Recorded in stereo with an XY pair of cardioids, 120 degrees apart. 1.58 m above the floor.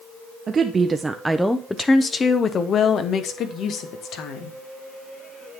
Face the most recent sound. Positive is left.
turn(degrees=65)